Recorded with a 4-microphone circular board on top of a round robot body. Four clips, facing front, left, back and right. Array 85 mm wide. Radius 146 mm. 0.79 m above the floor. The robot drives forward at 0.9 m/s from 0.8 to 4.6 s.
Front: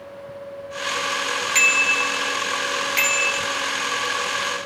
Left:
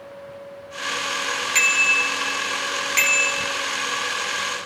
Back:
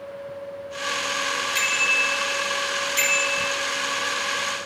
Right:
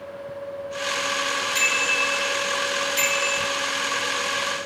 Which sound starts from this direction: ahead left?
A bicycle bell, at 1.6 s.